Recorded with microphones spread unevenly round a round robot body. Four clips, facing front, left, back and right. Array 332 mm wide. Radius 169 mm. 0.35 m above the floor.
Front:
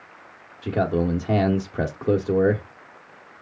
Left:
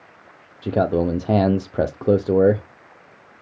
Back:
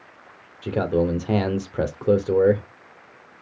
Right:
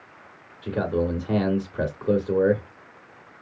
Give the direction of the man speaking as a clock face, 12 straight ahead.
8 o'clock.